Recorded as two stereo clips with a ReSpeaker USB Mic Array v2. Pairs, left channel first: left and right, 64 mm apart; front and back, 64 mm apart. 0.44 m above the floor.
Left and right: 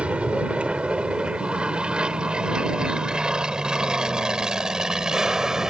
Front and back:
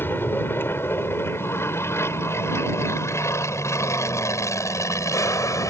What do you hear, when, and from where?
0.0 s an aircraft: 30° right; by 5.7 s 10° right